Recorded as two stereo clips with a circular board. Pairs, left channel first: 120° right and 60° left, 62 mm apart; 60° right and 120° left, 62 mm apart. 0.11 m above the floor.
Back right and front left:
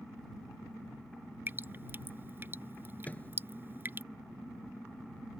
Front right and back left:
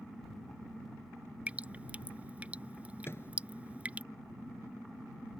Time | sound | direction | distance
1.5 | dripping | 70° left | ?
3.0 | a microwave | 70° right | ?